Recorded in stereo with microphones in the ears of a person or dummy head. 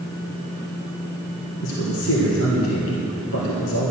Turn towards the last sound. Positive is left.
turn(degrees=70)  # may be behind; listen again after turning